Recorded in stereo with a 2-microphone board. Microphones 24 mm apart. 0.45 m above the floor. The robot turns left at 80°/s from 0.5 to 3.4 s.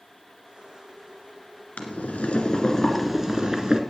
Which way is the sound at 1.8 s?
105° left.